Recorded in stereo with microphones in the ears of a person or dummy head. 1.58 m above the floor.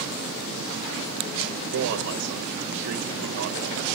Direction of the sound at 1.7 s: 75° right (ahead or behind).